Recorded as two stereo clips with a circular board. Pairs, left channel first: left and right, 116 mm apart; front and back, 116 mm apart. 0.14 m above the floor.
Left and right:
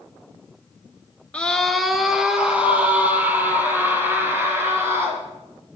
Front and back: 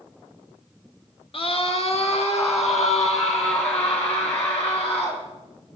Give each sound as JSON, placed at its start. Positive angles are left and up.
{"t": 1.3, "sound": "a scream", "azimuth_deg": 10, "distance_m": 1.7}